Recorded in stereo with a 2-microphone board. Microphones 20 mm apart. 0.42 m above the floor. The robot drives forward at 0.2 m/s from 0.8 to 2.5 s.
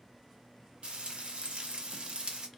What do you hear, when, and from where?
0.8 s frying: 60° right (ahead or behind), 0.6 m; by 2.5 s 55° right (ahead or behind), 0.6 m